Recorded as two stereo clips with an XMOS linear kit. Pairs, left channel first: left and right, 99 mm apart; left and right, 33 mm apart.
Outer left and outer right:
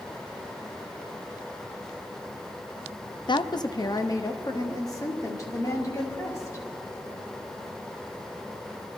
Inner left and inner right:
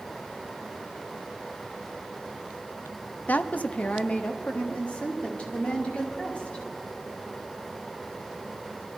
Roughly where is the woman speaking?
Left.